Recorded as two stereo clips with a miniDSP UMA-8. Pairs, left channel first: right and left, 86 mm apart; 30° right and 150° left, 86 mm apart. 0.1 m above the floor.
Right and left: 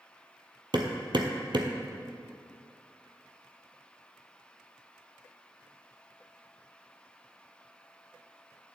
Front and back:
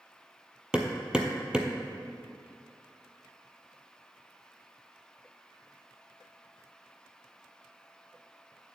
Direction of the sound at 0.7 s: 70° left.